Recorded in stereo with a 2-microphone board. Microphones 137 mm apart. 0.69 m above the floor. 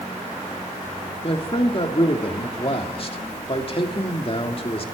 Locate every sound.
1.2 s a man speaking: 40° left (ahead or behind), 1.8 m